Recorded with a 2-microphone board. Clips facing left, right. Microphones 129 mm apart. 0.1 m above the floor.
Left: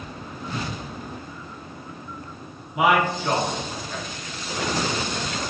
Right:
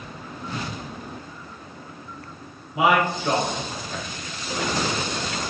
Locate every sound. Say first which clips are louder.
2.7 s a man speaking: even; 30° right (ahead or behind), 1.4 m